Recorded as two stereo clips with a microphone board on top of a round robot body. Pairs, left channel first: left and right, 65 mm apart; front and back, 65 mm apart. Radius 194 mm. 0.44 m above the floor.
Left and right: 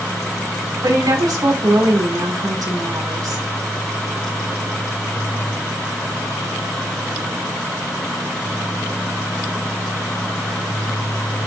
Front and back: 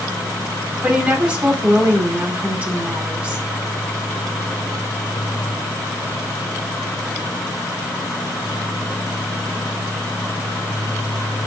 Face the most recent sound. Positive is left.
turn(degrees=-110)